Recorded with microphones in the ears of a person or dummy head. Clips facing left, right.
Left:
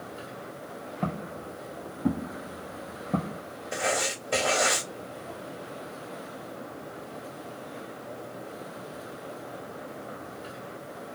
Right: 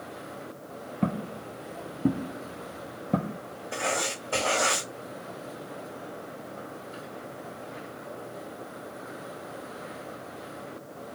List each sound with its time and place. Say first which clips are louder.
1.0 s footsteps: right 4 dB; 15° right (ahead or behind), 1.6 m
3.7 s writing: left 2 dB; 25° left (ahead or behind), 2 m